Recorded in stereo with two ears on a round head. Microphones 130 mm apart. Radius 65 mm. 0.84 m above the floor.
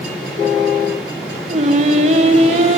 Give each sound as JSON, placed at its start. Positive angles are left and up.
{"t": 1.5, "sound": "singing", "side_deg": -50, "distance_m": 1.6}